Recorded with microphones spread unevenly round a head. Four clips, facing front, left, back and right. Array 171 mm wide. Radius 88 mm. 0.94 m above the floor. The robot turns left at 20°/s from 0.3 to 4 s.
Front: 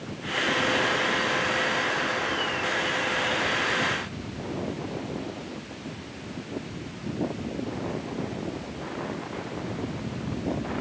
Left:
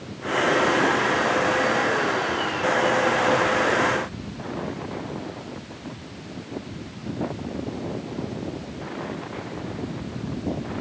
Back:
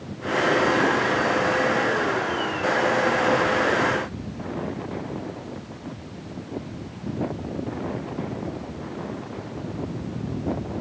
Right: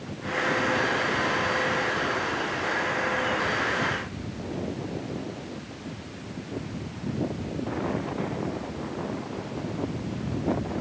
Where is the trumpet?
I don't hear a trumpet.